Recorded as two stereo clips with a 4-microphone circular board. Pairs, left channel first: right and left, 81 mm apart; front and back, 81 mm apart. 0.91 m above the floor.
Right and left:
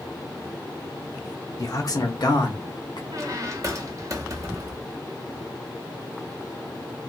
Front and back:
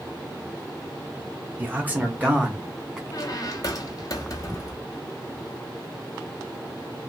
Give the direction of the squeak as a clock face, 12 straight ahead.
11 o'clock.